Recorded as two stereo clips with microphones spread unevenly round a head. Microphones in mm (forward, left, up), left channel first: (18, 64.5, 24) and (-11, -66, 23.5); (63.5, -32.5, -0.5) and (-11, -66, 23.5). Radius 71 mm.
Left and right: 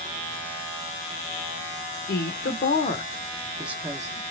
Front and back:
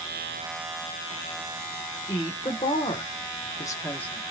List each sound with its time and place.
2.1 s a woman speaking: 70° left, 1.2 m; by 4.2 s 45° right, 1.1 m